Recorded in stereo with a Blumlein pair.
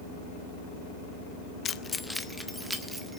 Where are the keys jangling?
25° left, 0.6 m; by 3.2 s 10° right, 1.9 m.